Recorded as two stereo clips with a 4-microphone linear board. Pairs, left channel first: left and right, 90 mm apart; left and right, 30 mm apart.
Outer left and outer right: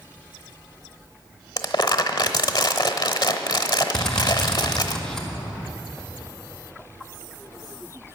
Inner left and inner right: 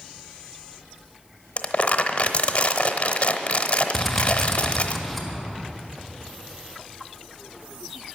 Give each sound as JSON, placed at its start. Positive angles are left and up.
{"t": 1.6, "sound": "crumpling", "side_deg": 50, "distance_m": 0.8}
{"t": 3.9, "sound": "a drill", "side_deg": 5, "distance_m": 1.6}